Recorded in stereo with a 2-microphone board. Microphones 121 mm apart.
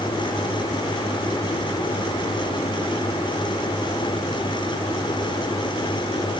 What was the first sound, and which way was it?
Only background noise.